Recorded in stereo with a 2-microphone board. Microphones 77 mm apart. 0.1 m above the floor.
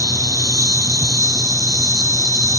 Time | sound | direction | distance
0.0 | an insect | 55° right (ahead or behind) | ?